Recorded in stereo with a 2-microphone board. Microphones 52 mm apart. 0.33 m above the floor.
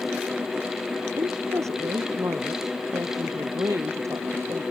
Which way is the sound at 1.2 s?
75° right (ahead or behind).